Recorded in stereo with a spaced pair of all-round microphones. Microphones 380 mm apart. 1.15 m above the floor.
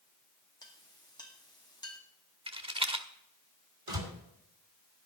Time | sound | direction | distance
0.6 | a clink | 10° left (ahead or behind) | 1.7 m
2.5 | a rattle | 15° right (ahead or behind) | 0.9 m
3.9 | a door slam | 75° right (ahead or behind) | 2.5 m